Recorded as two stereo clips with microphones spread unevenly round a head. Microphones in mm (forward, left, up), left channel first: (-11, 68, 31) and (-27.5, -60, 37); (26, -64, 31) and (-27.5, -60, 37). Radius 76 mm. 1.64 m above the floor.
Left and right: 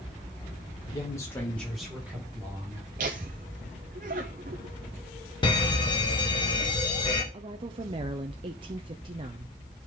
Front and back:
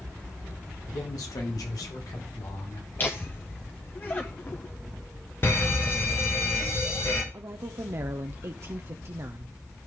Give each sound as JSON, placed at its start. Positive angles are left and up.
{"t": 0.9, "sound": "a man speaking", "azimuth_deg": 25, "distance_m": 2.0}
{"t": 3.0, "sound": "laughter", "azimuth_deg": -60, "distance_m": 0.7}
{"t": 5.4, "sound": "a fire alarm", "azimuth_deg": 35, "distance_m": 1.5}
{"t": 7.3, "sound": "a woman speaking", "azimuth_deg": -150, "distance_m": 0.6}